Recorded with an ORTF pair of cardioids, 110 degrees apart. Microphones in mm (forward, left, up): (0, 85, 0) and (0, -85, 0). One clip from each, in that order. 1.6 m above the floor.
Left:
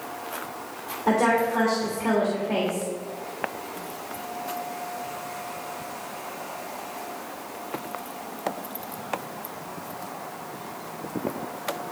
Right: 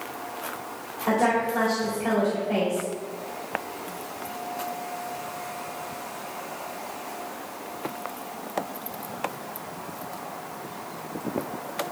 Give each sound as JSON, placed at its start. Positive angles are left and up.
{"t": 1.1, "sound": "a woman speaking", "azimuth_deg": 40, "distance_m": 3.0}